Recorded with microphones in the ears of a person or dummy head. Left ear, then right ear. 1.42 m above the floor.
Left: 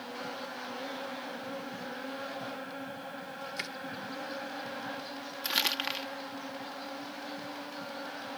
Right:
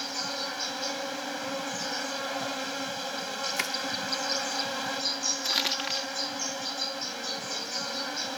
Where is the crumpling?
10° left (ahead or behind).